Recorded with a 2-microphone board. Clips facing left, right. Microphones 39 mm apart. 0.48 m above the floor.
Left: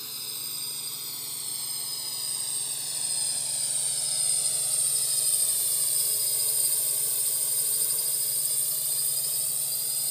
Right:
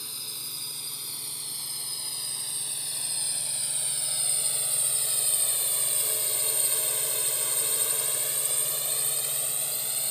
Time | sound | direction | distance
0.0 | a drone | 5° right (ahead or behind) | ?